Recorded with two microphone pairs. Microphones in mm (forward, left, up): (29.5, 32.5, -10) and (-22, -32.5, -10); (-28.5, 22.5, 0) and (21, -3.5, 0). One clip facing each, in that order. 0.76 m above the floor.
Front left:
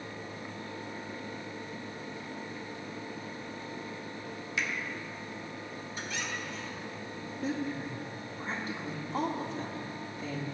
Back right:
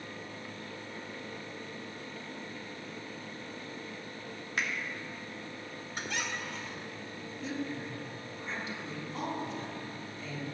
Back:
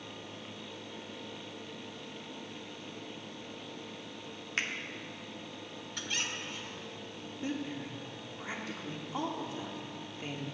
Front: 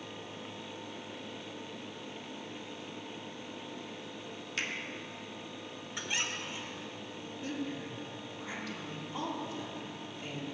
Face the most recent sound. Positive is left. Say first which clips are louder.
# front left 3 dB, back 1 dB
turn(degrees=95)